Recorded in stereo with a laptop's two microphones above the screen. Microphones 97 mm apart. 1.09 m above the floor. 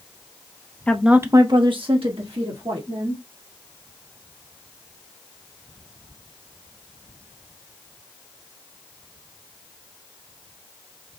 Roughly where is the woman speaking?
Centre.